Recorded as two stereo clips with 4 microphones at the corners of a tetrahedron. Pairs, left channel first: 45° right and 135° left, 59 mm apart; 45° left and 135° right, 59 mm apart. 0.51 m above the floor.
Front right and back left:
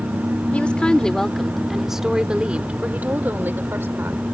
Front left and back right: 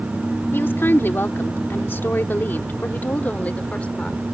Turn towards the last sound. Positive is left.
turn(degrees=110)